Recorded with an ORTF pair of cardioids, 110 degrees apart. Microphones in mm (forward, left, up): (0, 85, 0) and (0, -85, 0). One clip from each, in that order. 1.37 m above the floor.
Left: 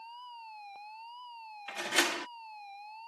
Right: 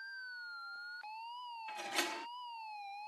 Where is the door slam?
55° left.